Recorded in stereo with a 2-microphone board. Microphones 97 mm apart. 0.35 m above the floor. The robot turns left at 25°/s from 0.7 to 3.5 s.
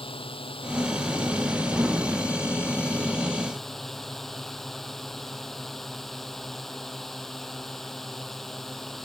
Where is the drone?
75° left; by 9.1 s 5° left.